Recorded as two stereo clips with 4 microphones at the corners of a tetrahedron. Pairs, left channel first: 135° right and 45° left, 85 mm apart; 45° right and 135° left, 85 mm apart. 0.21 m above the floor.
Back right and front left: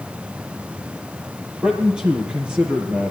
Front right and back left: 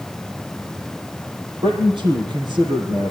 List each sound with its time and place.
1.6 s a man speaking: 125° left, 5.5 m